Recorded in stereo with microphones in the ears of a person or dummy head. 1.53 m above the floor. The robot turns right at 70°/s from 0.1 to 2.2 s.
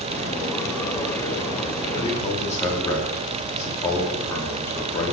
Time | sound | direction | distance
1.9 | a man speaking | 35° left (ahead or behind) | 4 m